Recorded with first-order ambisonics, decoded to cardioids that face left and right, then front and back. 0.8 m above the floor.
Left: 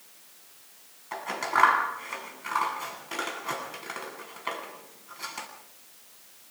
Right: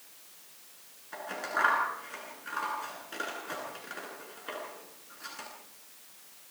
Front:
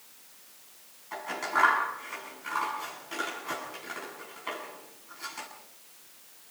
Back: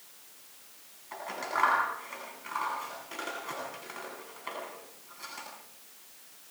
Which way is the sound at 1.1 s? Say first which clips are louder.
Left 6 dB, front 4 dB; 85° left.